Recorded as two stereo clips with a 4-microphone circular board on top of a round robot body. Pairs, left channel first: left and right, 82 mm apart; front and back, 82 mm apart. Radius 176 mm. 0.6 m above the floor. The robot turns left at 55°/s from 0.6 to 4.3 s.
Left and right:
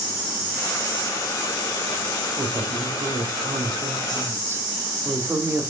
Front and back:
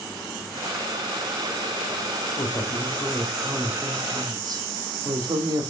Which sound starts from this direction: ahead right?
A woman speaking, at 2.4 s.